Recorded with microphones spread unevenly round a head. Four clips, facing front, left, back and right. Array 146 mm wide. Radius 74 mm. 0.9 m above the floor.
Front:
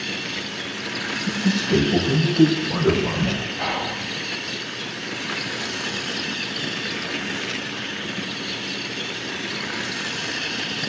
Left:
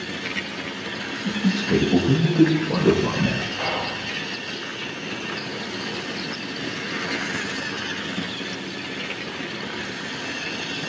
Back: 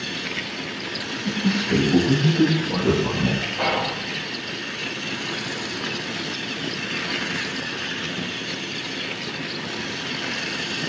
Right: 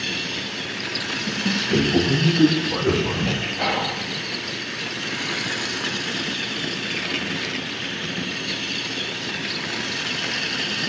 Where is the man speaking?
110° left, 9.5 m; by 3.4 s 105° left, 11.5 m.